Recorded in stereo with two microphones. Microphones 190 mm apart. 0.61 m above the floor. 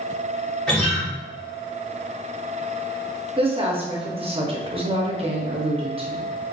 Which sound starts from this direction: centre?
A guitar, at 0.7 s.